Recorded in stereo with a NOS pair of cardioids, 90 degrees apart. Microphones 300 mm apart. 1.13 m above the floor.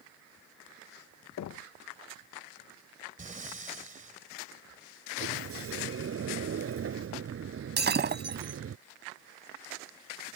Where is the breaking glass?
35° right.